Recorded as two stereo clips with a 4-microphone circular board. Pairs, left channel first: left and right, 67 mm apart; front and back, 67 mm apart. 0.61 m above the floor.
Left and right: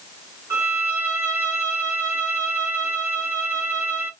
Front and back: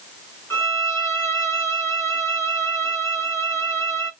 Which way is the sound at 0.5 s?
45° right.